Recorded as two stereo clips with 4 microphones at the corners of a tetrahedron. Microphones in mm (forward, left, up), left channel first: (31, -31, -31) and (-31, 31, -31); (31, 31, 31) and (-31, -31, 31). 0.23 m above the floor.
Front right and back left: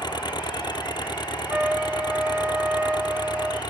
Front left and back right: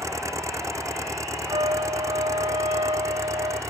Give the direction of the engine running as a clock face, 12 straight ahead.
3 o'clock.